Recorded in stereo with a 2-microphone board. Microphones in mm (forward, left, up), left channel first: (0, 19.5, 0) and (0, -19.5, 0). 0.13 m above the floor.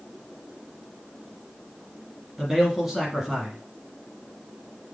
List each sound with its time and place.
2.4 s a man speaking: centre (ahead or behind), 2.0 m